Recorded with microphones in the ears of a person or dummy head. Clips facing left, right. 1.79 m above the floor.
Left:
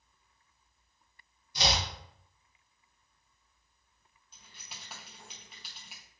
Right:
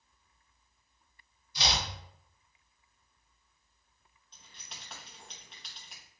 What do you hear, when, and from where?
1.6 s chopping: 40° left (ahead or behind), 1.0 m
4.3 s keys jangling: 5° left (ahead or behind), 0.9 m